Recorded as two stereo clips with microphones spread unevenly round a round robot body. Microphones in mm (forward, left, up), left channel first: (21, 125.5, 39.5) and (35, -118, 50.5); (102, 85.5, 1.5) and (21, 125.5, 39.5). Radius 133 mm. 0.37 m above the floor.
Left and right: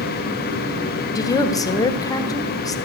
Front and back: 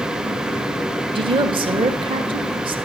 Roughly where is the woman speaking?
Behind left.